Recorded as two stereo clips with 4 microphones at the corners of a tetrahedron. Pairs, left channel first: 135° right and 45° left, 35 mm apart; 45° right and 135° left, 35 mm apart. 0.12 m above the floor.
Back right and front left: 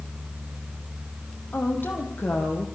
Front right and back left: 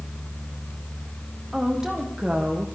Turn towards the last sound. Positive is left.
turn(degrees=-150)